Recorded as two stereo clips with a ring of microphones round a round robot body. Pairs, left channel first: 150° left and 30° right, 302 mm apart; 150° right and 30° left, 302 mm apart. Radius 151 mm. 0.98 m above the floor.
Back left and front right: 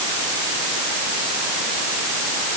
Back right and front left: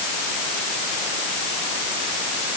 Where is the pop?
No pop in this recording.